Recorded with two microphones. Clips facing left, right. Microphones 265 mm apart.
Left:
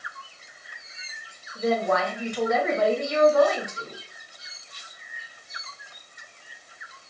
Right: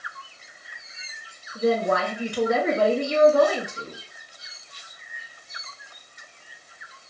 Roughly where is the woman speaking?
Right.